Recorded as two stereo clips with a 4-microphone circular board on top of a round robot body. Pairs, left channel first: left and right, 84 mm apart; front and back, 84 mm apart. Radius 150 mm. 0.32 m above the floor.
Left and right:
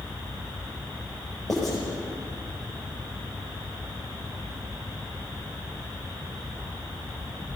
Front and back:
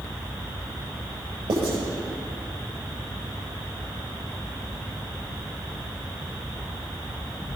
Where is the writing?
175° left, 9 m.